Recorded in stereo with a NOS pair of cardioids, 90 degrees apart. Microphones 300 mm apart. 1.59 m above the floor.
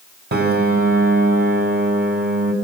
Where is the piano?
35° right, 5 m.